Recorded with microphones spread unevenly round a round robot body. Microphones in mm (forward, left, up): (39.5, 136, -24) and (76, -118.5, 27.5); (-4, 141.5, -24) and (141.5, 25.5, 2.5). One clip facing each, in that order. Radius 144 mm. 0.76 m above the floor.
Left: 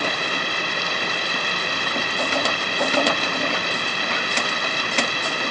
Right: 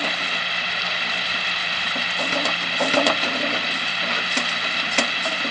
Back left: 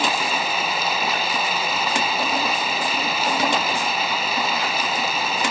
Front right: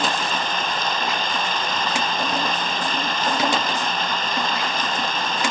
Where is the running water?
60° left.